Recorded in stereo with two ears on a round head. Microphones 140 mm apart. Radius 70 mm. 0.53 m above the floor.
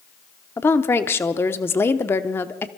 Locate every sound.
0.6 s a woman speaking: 15° left (ahead or behind), 0.8 m